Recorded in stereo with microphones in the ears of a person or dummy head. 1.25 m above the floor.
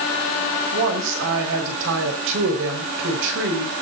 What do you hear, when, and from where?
0.7 s a woman speaking: 65° right (ahead or behind), 5 m